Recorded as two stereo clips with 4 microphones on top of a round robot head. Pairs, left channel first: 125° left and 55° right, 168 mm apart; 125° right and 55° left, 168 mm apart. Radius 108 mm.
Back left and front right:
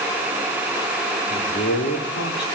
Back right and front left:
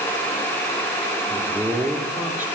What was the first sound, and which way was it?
A man speaking, 140° left.